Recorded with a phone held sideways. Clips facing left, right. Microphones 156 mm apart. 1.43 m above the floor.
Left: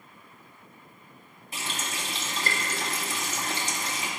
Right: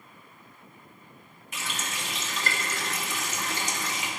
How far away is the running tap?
About 2.0 m.